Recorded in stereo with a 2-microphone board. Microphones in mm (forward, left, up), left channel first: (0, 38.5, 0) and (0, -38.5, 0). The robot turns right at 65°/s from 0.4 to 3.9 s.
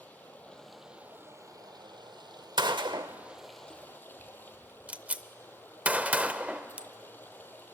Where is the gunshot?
75° right (ahead or behind), 0.7 m; by 6.9 s 20° right (ahead or behind), 0.7 m.